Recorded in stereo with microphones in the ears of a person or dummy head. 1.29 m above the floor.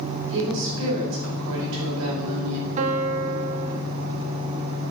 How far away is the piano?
About 0.8 m.